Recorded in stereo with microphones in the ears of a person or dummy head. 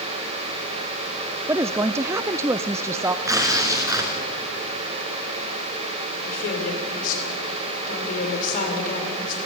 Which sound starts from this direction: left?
A woman speaking, at 6.2 s.